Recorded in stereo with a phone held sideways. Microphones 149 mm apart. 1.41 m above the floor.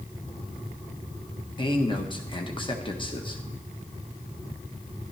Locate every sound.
1.6 s a man speaking: 35° left (ahead or behind), 1.3 m